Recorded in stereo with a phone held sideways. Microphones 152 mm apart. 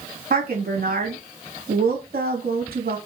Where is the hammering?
No hammering in this recording.